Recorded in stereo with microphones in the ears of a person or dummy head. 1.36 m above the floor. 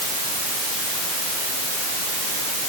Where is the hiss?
I don't hear a hiss.